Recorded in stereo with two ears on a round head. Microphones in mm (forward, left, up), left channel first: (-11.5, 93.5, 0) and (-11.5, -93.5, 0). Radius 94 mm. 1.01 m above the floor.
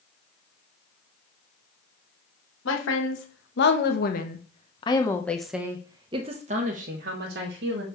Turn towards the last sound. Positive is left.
turn(degrees=-55)  # may be behind; listen again after turning